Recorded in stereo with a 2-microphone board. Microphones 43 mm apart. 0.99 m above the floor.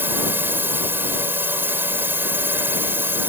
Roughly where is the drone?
Right.